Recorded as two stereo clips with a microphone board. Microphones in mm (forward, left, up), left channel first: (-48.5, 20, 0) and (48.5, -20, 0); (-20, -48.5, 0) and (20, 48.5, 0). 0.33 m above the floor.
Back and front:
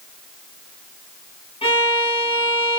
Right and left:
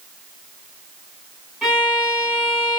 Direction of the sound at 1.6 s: 160° left.